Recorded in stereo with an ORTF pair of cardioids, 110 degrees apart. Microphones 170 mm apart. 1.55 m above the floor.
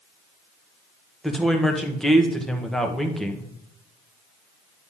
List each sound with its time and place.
1.2 s a woman speaking: straight ahead, 1.3 m